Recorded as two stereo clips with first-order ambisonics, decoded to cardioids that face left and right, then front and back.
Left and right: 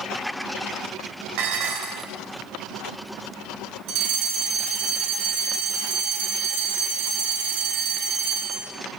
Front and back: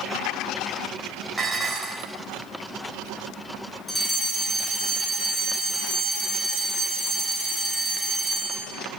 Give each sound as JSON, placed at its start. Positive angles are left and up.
{"t": 1.4, "sound": "dishes clattering", "azimuth_deg": -90, "distance_m": 3.0}
{"t": 3.9, "sound": "a fire alarm", "azimuth_deg": -85, "distance_m": 3.0}